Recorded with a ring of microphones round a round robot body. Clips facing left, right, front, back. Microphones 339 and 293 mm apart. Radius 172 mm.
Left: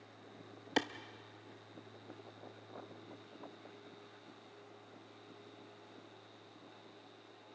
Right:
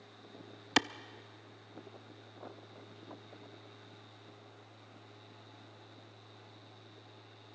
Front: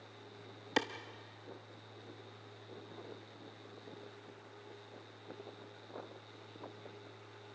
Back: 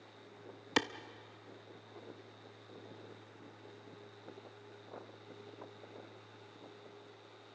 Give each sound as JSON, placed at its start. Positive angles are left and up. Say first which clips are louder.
{"t": 0.8, "sound": "a clap", "louder": "right 2 dB, back 1 dB", "azimuth_deg": -125, "distance_m": 0.6}